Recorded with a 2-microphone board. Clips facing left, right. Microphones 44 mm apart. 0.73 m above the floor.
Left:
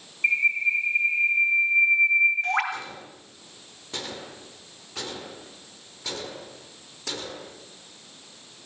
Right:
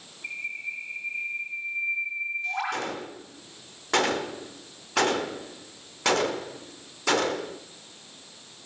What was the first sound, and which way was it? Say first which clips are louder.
A bird: left 12 dB; 70° left (ahead or behind).